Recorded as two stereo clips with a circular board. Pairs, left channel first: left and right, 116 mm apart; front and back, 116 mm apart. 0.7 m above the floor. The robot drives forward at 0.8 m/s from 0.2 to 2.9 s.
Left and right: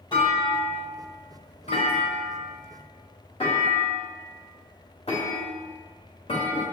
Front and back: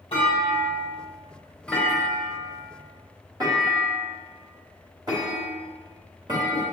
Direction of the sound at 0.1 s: 40° left.